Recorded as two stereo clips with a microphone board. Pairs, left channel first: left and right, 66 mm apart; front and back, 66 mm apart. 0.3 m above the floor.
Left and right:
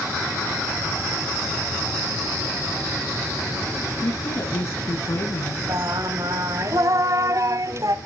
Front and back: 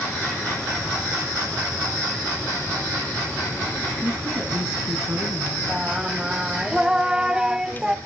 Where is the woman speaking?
130° left, 2.5 m.